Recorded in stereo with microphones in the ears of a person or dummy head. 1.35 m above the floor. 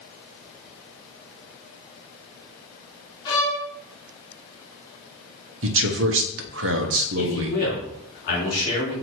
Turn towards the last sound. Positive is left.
turn(degrees=50)  # may be behind; listen again after turning